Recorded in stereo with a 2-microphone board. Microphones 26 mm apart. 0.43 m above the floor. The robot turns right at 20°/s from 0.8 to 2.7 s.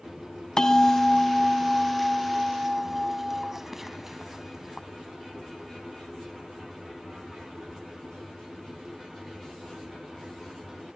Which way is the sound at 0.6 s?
155° left.